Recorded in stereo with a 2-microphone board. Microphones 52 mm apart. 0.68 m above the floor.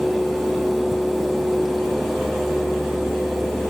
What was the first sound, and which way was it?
Only background noise.